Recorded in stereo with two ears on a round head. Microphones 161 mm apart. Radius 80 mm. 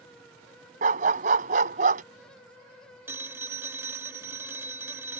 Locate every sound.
0.8 s a dog barking: 50° right (ahead or behind)
3.1 s a phone ringing: 15° right (ahead or behind)